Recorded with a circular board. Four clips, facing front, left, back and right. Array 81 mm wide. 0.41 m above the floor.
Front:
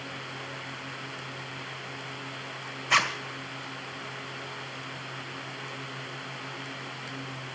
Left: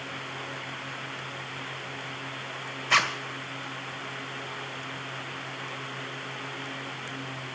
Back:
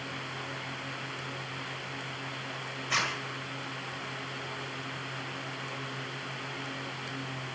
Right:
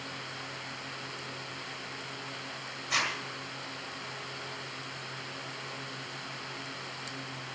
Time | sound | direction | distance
2.9 | a zipper | 55° left | 1.8 m